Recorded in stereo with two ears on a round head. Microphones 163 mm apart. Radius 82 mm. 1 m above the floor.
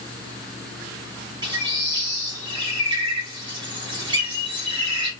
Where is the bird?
25° right (ahead or behind), 1.5 m.